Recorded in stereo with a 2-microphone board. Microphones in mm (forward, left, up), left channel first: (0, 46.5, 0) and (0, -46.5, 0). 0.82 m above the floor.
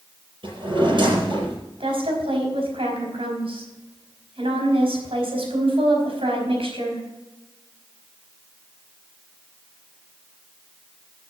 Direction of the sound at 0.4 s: 60° right (ahead or behind).